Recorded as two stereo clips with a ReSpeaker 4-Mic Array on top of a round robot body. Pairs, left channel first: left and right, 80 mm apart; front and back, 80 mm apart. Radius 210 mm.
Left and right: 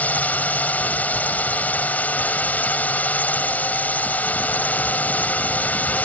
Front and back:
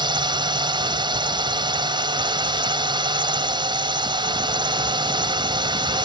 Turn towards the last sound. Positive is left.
turn(degrees=160)